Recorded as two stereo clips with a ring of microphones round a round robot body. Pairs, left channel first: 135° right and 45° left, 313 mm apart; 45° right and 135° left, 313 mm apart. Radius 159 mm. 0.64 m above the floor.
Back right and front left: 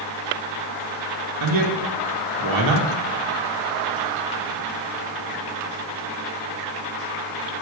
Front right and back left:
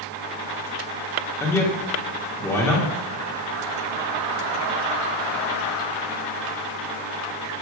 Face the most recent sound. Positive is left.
turn(degrees=35)